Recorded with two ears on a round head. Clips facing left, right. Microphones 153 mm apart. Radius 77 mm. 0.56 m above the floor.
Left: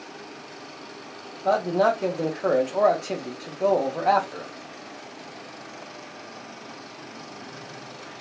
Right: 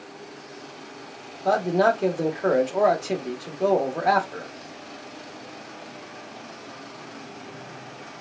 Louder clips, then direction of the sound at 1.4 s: Right 1 dB; 5° right (ahead or behind).